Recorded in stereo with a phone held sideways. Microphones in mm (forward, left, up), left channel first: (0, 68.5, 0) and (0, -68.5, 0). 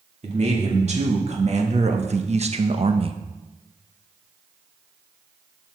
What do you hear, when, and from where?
0.2 s a man speaking: 55° right (ahead or behind), 2 m; by 3.2 s 40° right (ahead or behind), 0.6 m